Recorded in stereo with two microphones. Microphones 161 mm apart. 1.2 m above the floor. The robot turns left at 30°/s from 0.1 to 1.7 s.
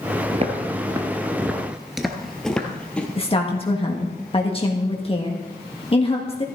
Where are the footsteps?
40° right (ahead or behind), 1.7 m; by 3.1 s 5° left (ahead or behind), 2.5 m.